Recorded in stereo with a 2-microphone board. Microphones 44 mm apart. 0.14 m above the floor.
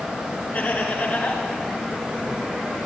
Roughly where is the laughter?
Left.